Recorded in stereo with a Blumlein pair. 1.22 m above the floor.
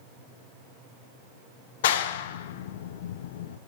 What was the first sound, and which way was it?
A clap, 55° left.